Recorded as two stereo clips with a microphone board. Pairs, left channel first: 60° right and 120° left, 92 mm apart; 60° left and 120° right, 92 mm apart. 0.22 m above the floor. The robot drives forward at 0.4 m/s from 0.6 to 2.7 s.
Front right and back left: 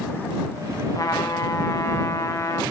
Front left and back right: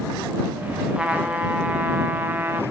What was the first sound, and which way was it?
A trumpet, 45° right.